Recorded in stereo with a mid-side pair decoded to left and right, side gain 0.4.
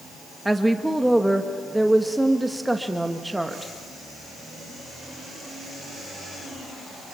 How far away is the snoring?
I don't hear snoring.